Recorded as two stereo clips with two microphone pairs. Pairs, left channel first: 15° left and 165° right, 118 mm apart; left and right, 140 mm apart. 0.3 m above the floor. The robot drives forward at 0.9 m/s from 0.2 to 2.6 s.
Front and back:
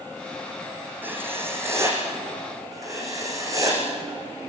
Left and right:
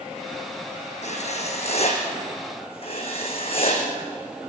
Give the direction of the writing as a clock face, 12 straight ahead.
8 o'clock.